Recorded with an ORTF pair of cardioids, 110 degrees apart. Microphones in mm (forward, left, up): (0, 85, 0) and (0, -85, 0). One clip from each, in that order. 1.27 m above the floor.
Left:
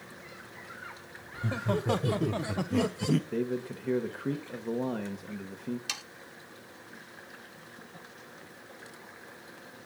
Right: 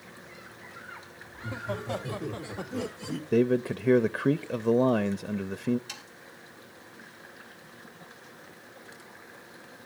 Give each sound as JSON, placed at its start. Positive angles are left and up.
{"t": 1.3, "sound": "laughter", "azimuth_deg": 50, "distance_m": 1.9}
{"t": 3.3, "sound": "a man speaking", "azimuth_deg": -45, "distance_m": 0.6}
{"t": 5.9, "sound": "sawing", "azimuth_deg": 60, "distance_m": 1.6}